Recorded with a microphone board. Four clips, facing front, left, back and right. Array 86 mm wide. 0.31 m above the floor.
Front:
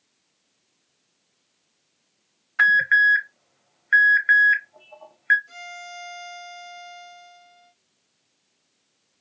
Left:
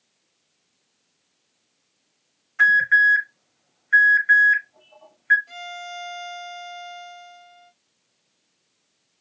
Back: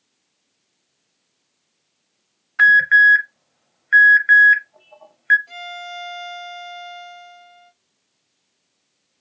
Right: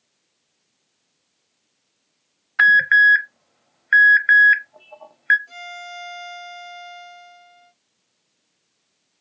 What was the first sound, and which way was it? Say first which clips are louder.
An alarm: right 3 dB, back 5 dB; 90° right.